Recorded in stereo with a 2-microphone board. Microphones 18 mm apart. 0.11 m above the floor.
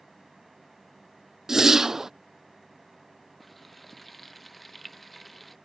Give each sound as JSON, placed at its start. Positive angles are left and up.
{"t": 1.5, "sound": "a whoosh", "side_deg": -30}
{"t": 3.4, "sound": "frying", "side_deg": 5}